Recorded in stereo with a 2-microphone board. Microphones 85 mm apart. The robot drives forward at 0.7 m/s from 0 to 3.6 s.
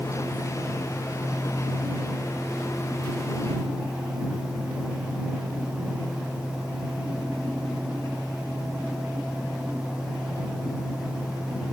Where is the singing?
I don't hear singing.